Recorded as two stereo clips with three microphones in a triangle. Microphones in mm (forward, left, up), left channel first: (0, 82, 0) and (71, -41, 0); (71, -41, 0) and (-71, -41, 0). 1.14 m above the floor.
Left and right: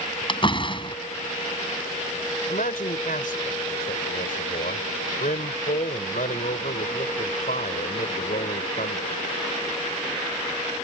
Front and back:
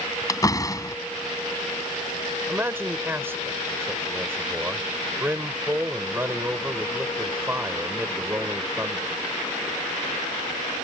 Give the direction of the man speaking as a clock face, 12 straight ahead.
8 o'clock.